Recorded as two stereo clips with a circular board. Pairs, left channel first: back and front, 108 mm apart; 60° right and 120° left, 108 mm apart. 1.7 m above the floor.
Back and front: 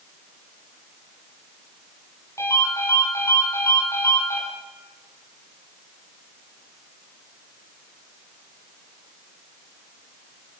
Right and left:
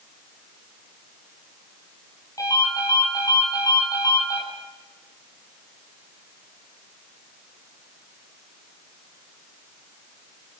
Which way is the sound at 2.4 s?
115° right.